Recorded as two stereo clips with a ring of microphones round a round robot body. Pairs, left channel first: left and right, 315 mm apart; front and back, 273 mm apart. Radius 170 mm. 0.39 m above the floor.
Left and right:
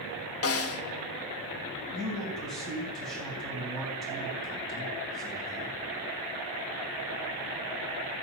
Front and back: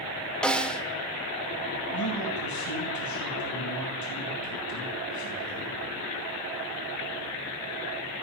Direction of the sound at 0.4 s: 85° left.